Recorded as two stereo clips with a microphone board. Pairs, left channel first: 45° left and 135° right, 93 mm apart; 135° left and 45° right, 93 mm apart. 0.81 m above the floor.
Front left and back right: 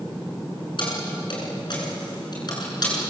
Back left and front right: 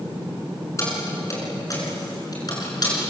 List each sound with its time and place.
0.8 s keys jangling: 80° left, 7.5 m; by 2.9 s 90° left, 8.5 m